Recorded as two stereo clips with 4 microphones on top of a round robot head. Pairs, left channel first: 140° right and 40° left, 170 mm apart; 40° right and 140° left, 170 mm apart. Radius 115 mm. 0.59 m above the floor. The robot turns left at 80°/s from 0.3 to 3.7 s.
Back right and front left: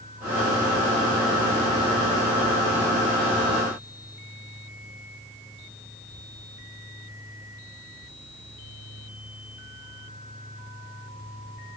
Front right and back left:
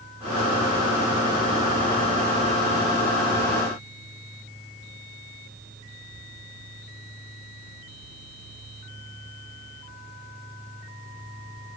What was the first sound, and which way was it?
Only background noise.